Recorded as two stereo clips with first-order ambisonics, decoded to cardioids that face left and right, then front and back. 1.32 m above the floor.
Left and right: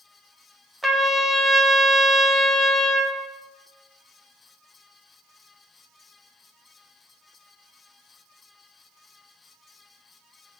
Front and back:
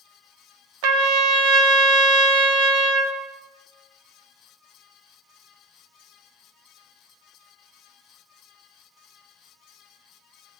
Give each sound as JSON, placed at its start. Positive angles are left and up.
{"t": 0.8, "sound": "a trumpet", "azimuth_deg": -175, "distance_m": 1.0}